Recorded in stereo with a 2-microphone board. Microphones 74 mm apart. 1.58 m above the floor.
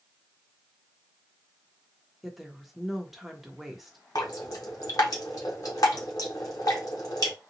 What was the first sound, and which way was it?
A woman speaking, centre (ahead or behind).